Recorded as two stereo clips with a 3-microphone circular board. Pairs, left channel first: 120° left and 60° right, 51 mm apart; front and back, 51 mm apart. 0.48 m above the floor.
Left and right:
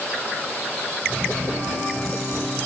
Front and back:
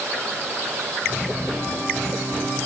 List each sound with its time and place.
Only background noise.